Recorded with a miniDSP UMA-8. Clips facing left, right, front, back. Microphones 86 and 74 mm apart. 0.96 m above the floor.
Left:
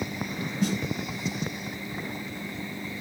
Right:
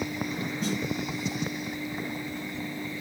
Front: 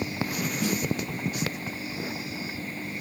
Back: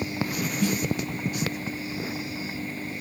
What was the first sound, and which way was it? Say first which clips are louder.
A snare drum: left 4 dB, back 3 dB; 75° left.